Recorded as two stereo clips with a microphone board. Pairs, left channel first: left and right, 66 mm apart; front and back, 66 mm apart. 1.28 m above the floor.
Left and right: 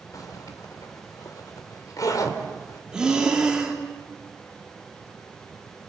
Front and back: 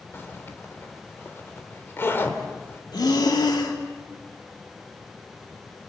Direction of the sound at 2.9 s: 10° right.